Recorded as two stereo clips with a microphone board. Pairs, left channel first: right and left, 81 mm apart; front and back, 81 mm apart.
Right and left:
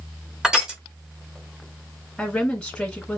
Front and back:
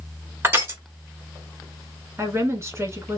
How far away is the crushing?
About 1.2 m.